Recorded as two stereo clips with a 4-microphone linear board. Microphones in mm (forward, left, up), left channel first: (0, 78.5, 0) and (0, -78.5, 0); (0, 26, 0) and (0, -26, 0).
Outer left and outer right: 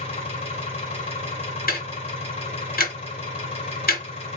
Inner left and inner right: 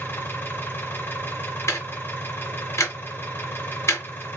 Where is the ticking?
75° left (ahead or behind), 1.5 m.